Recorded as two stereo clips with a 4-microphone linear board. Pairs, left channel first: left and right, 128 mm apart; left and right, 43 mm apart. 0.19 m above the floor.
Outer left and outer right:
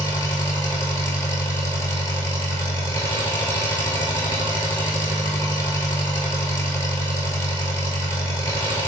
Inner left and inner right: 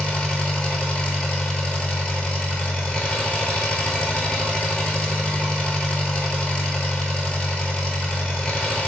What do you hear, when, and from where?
0.0 s an engine running: 20° left (ahead or behind), 0.8 m